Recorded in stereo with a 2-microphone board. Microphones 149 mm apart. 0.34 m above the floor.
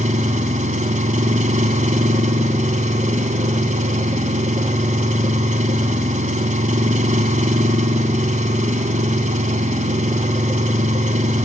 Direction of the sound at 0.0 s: 55° right (ahead or behind).